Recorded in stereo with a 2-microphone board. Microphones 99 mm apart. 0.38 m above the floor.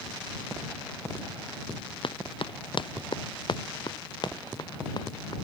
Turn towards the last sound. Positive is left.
turn(degrees=45)  # may be behind; listen again after turning